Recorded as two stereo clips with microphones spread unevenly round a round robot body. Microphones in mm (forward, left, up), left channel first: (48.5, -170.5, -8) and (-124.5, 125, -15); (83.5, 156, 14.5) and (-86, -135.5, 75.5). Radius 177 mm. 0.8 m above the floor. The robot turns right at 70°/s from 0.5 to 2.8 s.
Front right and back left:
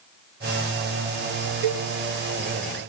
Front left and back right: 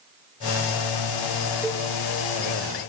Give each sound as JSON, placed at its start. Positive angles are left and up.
{"t": 1.6, "sound": "a cowbell", "azimuth_deg": 145, "distance_m": 0.6}